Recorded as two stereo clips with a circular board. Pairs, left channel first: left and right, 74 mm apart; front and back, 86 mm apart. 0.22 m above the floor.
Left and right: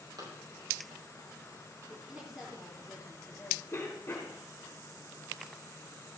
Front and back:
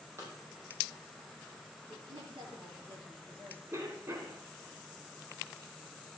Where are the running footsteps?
120° right, 6 m.